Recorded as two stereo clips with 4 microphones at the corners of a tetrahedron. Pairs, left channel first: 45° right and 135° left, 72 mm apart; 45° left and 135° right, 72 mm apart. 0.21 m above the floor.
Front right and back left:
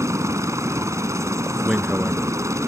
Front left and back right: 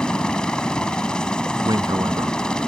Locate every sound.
0.0 s a helicopter: 120° left
1.6 s a man speaking: 140° right